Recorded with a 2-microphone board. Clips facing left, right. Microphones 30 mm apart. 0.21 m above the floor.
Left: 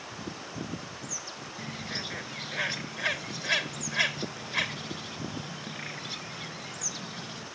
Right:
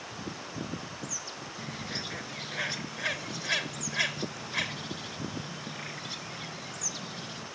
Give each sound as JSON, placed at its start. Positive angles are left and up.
{"t": 1.6, "sound": "a bird", "side_deg": 10, "distance_m": 0.9}